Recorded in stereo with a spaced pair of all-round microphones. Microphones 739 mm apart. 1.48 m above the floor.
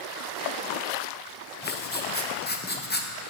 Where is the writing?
15° left (ahead or behind), 0.5 m.